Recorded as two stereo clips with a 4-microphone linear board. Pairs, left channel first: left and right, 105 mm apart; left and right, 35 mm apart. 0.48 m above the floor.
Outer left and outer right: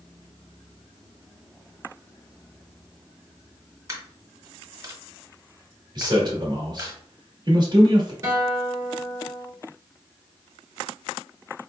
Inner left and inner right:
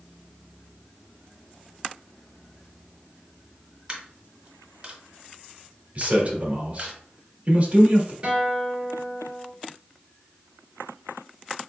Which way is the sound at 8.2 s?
30° right (ahead or behind).